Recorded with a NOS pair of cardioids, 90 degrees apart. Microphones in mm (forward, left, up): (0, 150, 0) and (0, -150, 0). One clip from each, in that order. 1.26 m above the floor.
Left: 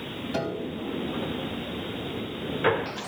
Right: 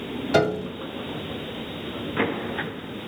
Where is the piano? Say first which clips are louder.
Right 10 dB; 65° right, 1.2 m.